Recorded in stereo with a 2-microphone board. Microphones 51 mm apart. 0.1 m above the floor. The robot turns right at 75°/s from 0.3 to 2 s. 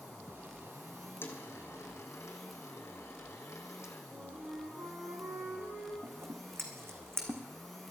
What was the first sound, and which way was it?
A dropped coin, 45° left (ahead or behind).